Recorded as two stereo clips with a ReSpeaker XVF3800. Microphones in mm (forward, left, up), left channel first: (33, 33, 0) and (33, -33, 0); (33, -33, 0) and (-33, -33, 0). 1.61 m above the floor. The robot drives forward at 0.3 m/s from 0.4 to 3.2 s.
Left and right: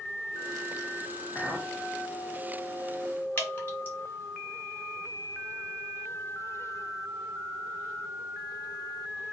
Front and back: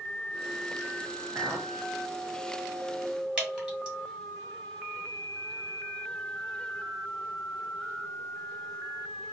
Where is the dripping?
120° left, 1.5 m.